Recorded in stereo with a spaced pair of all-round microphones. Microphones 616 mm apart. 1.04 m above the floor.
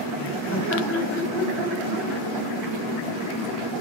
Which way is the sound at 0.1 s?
20° left (ahead or behind).